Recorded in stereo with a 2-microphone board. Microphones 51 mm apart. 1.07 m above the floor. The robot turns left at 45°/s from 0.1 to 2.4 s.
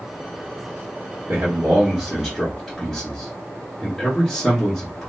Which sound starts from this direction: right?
A man speaking, at 1.3 s.